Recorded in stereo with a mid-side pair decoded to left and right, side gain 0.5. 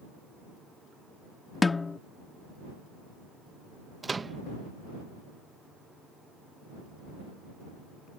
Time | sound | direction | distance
1.6 | a snare drum | 25° left | ?
4.0 | a microwave | 25° right | ?